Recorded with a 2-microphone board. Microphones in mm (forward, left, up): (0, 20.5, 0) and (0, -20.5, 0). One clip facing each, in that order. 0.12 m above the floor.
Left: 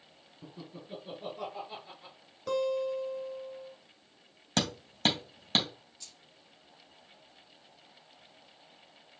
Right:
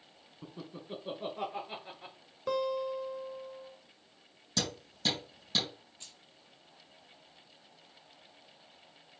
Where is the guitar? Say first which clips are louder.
Left 2 dB; 20° right (ahead or behind), 2 m.